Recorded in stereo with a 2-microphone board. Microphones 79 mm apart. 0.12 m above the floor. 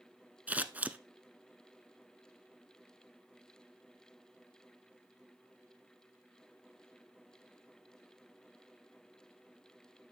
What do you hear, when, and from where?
0.5 s scissors: 20° right (ahead or behind), 0.7 m